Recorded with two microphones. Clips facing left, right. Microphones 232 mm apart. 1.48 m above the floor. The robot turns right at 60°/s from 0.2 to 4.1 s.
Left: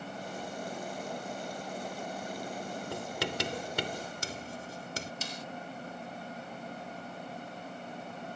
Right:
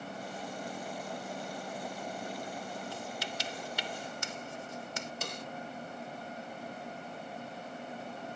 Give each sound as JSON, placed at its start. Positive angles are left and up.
{"t": 2.9, "sound": "writing", "side_deg": 70}
{"t": 5.2, "sound": "a snare drum", "side_deg": -65}